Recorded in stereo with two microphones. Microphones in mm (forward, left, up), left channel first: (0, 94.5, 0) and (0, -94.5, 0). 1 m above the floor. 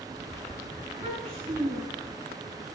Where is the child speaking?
30° right (ahead or behind), 7 m.